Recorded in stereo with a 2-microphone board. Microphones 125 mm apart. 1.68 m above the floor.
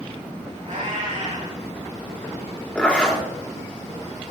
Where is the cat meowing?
75° right (ahead or behind), 5.5 m.